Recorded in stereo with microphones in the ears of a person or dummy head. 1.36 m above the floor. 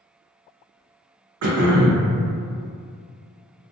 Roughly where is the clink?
No clink in this recording.